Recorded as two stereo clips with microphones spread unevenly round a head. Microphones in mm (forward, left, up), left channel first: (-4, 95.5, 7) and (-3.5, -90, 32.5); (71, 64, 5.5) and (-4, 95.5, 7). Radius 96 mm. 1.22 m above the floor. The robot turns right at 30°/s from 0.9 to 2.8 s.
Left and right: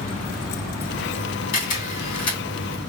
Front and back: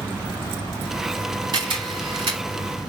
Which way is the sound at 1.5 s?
135° left.